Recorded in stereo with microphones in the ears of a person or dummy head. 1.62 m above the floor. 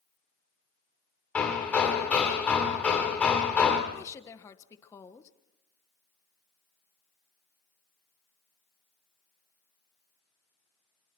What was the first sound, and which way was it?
Hammering, 10° left (ahead or behind).